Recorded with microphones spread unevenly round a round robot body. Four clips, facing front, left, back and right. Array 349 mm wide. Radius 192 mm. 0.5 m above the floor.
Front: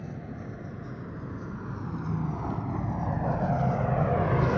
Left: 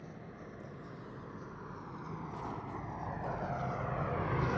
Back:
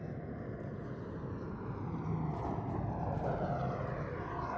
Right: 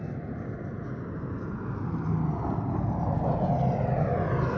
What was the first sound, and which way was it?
A vehicle, 75° right.